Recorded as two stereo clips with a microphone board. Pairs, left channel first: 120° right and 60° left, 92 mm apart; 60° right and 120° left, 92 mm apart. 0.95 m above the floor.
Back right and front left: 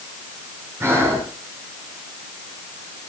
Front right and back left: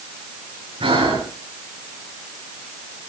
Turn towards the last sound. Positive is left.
turn(degrees=125)